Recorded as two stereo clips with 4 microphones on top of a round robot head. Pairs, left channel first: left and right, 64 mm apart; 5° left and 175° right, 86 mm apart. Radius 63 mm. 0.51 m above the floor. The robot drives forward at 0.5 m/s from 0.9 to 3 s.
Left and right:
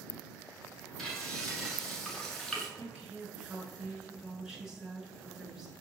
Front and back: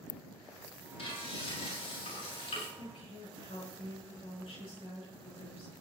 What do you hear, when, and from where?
1.0 s frying: 5° left, 8 m
2.8 s a woman speaking: 10° right, 7 m